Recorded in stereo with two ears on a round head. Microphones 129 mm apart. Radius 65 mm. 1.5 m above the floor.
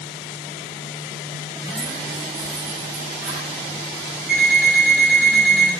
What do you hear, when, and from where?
1.6 s keys jangling: 5° right (ahead or behind), 1.2 m; by 3.5 s 55° right (ahead or behind), 1.9 m
4.3 s an alarm clock: 70° right (ahead or behind), 2.5 m